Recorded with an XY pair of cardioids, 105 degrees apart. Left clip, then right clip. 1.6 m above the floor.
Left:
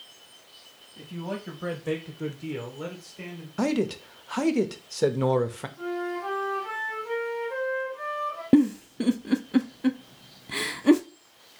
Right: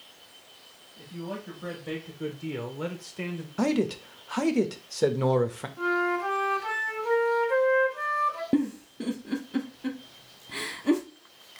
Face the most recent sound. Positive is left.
turn(degrees=45)